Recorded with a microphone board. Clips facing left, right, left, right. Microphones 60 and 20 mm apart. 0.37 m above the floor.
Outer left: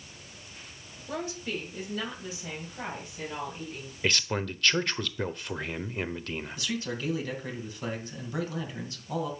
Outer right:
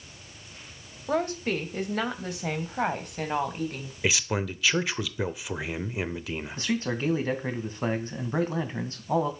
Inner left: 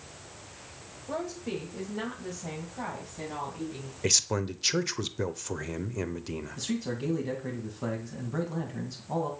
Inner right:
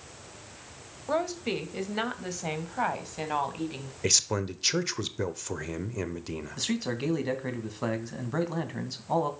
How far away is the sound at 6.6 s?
About 2 m.